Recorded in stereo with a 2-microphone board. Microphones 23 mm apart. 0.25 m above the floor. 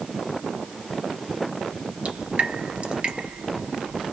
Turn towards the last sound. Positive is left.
turn(degrees=-55)  # may be behind; listen again after turning